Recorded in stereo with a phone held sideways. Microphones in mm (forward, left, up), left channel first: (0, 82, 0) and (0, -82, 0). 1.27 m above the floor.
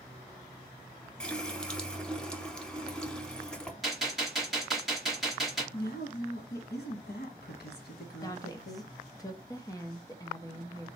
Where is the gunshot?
Centre (ahead or behind), 1.6 m.